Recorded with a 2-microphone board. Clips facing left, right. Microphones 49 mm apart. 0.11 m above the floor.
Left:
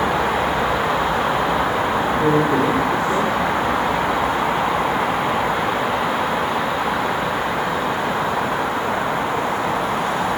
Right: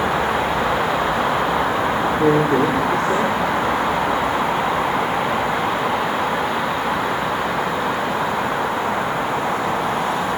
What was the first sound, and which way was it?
A woman speaking, 65° right (ahead or behind).